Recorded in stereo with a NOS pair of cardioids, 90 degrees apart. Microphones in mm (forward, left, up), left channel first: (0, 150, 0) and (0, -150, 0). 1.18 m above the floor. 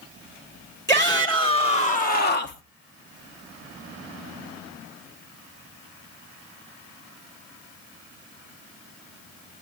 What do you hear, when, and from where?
0.9 s a shout: 10° left, 1.6 m; by 2.6 s 45° left, 1.0 m